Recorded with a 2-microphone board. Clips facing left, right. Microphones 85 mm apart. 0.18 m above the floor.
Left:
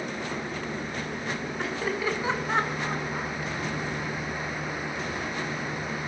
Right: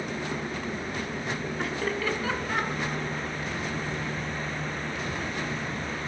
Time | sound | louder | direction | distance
1.6 | laughter | left 1 dB | centre (ahead or behind) | 2 m